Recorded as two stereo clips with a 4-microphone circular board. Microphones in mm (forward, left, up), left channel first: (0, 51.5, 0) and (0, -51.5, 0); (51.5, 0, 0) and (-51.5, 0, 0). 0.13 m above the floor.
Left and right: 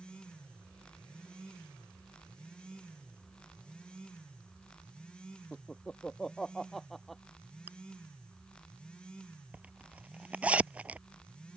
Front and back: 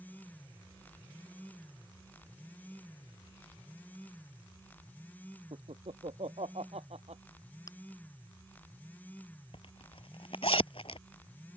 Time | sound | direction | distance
5.5 | laughter | 170° left | ?
7.7 | chewing | 30° right | ?
9.5 | a zipper | 15° right | ?